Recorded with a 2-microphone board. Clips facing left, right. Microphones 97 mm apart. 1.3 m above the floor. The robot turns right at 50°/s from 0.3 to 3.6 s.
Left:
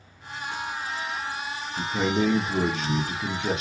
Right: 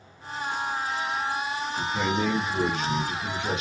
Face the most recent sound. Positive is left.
turn(degrees=140)